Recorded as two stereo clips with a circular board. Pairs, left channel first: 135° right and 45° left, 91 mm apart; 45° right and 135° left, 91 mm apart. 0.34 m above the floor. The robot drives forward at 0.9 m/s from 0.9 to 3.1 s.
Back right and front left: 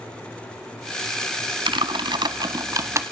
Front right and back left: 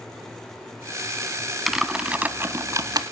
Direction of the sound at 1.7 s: 45° left.